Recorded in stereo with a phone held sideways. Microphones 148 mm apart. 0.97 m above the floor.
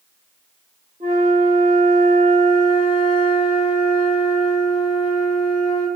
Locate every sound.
1.0 s a flute: 50° right (ahead or behind), 0.9 m